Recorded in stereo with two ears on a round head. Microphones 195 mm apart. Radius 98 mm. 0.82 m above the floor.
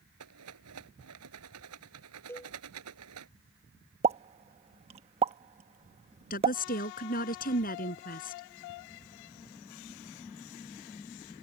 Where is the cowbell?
10° left (ahead or behind).